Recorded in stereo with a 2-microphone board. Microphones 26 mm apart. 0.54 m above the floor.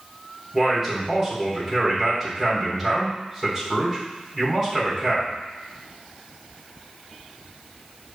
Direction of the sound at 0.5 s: 15° right (ahead or behind).